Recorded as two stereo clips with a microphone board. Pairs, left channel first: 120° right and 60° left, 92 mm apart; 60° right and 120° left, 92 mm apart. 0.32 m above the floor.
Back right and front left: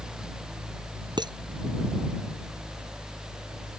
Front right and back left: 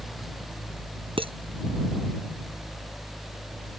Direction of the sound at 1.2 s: 100° left.